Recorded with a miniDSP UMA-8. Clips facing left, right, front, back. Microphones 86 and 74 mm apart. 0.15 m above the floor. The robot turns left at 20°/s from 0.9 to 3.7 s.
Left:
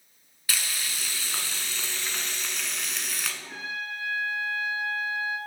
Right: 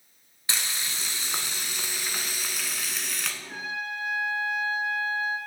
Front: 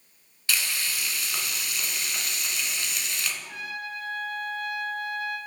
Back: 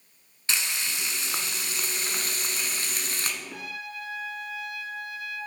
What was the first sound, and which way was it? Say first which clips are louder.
Frying: even, front 1 dB; 135° right.